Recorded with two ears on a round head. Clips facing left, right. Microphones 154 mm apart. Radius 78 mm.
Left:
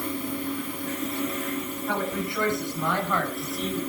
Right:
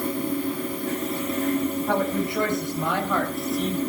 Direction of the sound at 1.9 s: 25° right (ahead or behind).